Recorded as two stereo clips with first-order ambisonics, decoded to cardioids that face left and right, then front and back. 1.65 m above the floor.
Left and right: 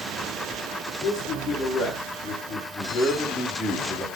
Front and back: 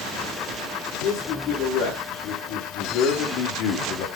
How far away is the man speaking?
About 5 m.